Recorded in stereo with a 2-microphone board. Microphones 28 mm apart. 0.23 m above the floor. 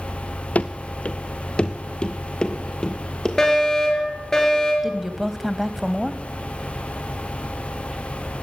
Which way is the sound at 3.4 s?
25° left (ahead or behind).